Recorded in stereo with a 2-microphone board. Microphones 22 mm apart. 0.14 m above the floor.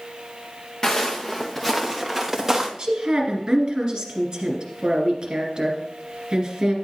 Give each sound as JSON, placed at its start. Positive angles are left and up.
{"t": 0.8, "sound": "footsteps", "side_deg": 35, "distance_m": 1.2}
{"t": 2.8, "sound": "a woman speaking", "side_deg": -40, "distance_m": 2.5}